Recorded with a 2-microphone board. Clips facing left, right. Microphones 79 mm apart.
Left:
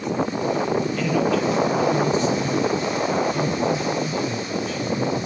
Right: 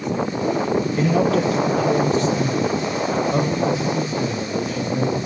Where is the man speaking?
35° right (ahead or behind), 1.9 m; by 5.2 s 70° right (ahead or behind), 4.5 m.